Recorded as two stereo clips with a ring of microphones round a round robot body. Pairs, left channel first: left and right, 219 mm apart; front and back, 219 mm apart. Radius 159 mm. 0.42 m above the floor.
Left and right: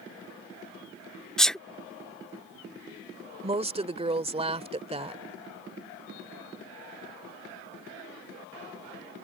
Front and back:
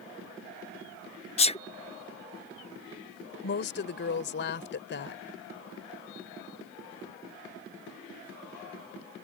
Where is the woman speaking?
30° right.